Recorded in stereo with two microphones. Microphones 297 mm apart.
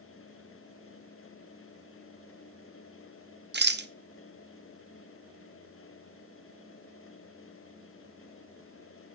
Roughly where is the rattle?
Right.